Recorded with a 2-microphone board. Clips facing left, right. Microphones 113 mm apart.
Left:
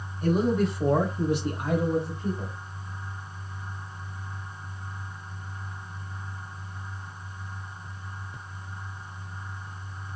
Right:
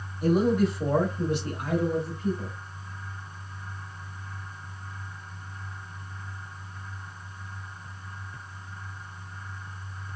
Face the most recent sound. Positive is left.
turn(degrees=30)  # may be behind; listen again after turning